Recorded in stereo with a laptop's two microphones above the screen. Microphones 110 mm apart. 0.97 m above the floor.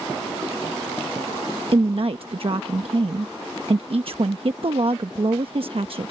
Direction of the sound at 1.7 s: 55° right (ahead or behind).